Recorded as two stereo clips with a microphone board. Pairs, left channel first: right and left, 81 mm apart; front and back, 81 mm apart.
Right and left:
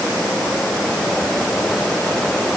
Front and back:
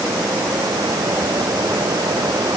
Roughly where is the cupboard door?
I don't hear a cupboard door.